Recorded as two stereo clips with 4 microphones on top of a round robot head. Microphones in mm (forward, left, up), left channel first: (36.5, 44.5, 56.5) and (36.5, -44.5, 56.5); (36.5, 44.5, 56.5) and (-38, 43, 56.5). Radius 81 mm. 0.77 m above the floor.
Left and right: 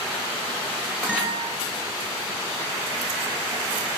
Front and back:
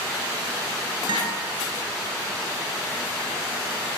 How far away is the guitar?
About 8 m.